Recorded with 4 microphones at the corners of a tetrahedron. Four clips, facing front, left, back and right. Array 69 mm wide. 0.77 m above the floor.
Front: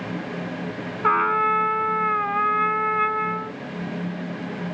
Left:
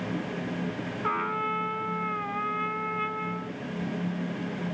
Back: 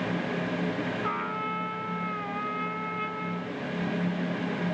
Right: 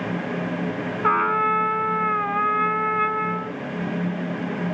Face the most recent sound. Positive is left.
turn(degrees=-40)